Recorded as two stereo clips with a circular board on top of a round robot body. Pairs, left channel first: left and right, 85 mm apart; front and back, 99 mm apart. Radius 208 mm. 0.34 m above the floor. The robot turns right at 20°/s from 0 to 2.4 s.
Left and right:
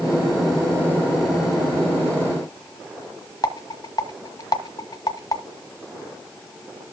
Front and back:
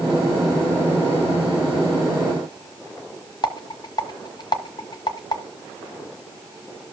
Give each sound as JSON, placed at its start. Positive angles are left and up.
{"t": 3.4, "sound": "a rattle", "azimuth_deg": 45, "distance_m": 1.2}